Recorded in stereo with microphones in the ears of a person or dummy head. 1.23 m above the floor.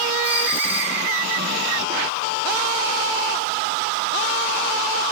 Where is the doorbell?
5° right (ahead or behind), 3 m.